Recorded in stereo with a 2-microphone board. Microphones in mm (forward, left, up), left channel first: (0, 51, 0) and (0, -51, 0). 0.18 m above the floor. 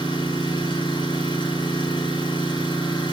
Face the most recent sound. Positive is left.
turn(degrees=50)  # may be behind; listen again after turning